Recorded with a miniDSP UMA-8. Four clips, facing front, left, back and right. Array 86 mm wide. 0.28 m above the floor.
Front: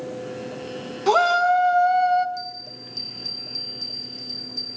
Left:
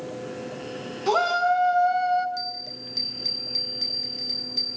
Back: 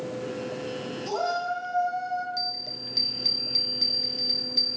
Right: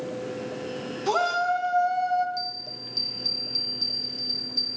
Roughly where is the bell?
Behind left.